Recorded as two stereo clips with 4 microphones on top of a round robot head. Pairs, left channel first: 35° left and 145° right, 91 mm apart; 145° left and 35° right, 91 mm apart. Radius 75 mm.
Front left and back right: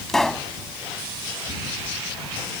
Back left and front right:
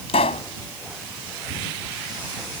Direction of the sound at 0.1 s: 120° left.